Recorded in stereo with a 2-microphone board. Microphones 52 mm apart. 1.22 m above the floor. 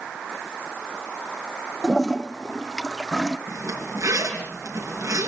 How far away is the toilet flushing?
About 0.6 m.